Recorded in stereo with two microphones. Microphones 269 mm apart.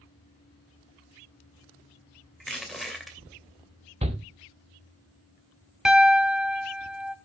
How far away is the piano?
About 0.7 m.